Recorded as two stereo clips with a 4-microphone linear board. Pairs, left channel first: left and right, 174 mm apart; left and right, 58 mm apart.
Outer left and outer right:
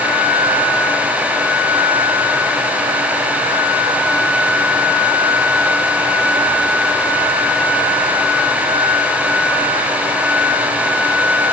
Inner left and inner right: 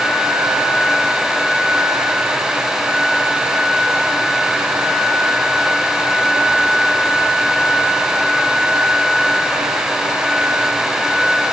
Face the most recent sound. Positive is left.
No sound to turn to.